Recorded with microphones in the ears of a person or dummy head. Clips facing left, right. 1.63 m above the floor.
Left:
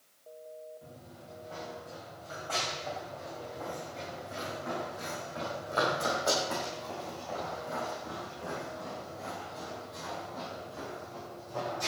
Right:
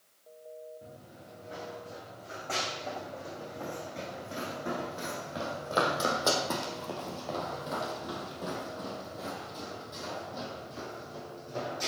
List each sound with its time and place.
0.8 s running footsteps: 25° right (ahead or behind), 6 m; by 11.9 s 30° right (ahead or behind), 4.5 m